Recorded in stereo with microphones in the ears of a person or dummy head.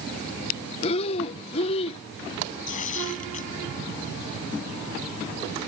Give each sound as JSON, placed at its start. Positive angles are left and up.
{"t": 0.8, "sound": "breathing", "side_deg": 35}
{"t": 2.7, "sound": "tearing paper", "side_deg": 45}